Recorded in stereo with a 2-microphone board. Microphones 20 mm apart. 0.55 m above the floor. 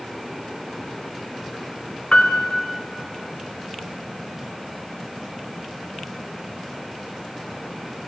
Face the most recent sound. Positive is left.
turn(degrees=80)